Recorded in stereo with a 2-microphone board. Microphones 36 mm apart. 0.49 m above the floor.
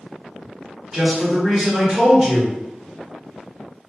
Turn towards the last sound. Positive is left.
turn(degrees=-20)  # may be behind; listen again after turning